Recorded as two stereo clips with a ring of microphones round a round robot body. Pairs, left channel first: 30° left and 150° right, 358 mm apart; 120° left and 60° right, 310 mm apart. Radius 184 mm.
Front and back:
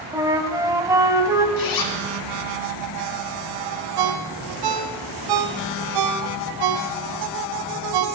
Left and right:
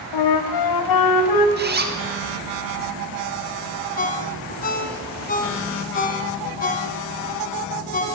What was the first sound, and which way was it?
A flute, 130° left.